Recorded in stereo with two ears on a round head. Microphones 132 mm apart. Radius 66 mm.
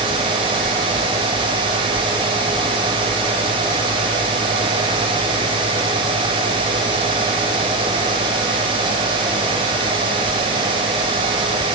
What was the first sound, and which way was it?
Only background noise.